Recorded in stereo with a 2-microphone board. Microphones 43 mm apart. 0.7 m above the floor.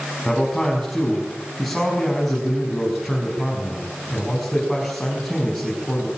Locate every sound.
0.2 s a man speaking: 5° left (ahead or behind), 6.5 m